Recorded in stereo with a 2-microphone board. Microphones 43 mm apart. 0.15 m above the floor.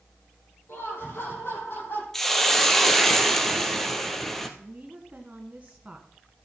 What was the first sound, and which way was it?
Laughter, 70° left (ahead or behind).